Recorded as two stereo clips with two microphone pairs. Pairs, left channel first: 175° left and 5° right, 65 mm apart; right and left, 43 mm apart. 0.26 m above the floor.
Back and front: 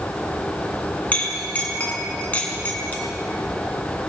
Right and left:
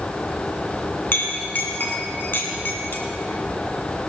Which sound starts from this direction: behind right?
A clink, at 1.1 s.